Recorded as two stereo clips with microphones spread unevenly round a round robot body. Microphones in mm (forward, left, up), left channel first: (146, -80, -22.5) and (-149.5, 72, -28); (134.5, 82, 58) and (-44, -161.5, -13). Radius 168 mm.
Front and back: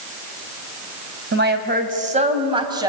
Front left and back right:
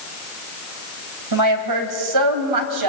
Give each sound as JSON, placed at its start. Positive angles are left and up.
{"t": 1.3, "sound": "a woman speaking", "azimuth_deg": -150, "distance_m": 3.5}